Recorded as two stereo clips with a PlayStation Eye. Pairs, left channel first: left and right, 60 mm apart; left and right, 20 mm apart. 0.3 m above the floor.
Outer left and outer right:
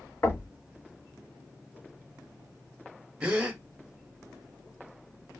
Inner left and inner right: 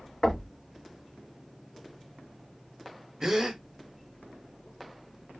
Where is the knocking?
35° left (ahead or behind), 0.9 m.